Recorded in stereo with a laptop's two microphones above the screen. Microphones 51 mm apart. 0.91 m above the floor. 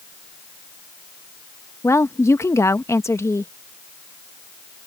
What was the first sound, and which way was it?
A woman speaking, 65° left (ahead or behind).